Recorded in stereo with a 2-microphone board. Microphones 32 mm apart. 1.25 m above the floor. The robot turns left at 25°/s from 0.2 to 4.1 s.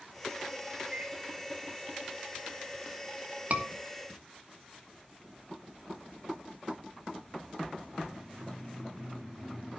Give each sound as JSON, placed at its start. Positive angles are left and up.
{"t": 0.9, "sound": "a microwave", "side_deg": -20, "distance_m": 4.0}
{"t": 3.5, "sound": "a scream", "side_deg": -60, "distance_m": 2.5}